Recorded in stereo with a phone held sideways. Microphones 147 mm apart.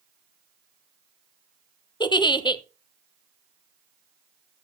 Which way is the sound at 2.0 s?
30° left (ahead or behind).